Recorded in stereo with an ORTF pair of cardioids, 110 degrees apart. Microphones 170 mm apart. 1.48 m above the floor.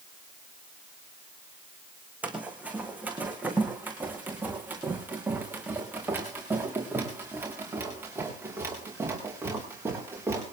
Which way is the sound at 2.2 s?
10° right.